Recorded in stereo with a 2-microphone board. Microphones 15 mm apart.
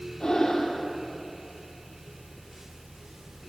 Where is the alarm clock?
No alarm clock in this recording.